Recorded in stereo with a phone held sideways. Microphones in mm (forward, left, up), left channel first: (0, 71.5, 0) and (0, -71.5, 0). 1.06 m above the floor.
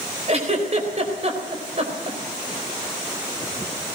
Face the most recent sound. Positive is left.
turn(degrees=-50)  # may be behind; listen again after turning